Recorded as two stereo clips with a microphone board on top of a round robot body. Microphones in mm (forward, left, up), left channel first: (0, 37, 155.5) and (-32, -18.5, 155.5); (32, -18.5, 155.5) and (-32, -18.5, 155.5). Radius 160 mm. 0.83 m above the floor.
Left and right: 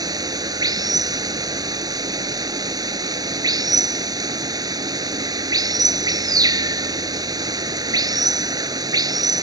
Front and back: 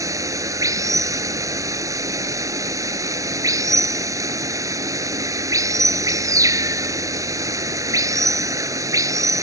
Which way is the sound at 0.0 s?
140° right.